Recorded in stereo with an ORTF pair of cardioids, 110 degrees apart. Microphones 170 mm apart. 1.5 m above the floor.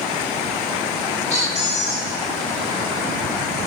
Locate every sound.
1.3 s a squeak: 40° left, 1.6 m